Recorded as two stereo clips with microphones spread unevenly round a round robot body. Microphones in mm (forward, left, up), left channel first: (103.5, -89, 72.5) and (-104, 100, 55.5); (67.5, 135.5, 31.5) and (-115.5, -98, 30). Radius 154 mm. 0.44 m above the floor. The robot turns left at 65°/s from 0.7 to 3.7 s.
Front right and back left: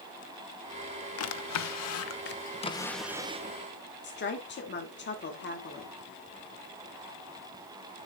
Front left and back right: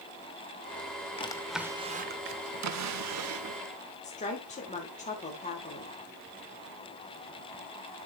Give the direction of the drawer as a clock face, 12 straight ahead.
1 o'clock.